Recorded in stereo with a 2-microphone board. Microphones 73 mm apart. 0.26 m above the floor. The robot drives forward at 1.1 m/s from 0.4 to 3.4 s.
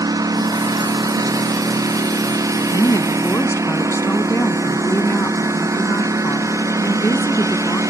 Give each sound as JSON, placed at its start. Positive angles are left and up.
{"t": 0.0, "sound": "a lawn mower", "side_deg": -55}
{"t": 2.7, "sound": "a woman speaking", "side_deg": 50}